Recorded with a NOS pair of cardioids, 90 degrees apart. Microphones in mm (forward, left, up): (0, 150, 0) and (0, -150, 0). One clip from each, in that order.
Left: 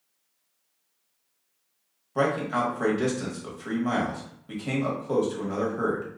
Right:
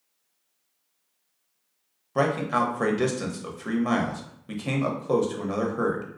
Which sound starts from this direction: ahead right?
A man speaking, at 2.1 s.